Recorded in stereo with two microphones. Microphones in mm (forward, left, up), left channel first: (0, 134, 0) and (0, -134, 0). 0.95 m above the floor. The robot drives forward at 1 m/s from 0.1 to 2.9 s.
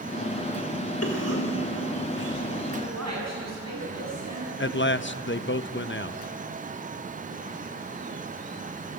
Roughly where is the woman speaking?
Right.